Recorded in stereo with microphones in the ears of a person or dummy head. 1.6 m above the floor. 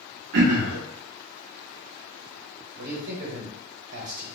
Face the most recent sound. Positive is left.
turn(degrees=-45)  # may be behind; listen again after turning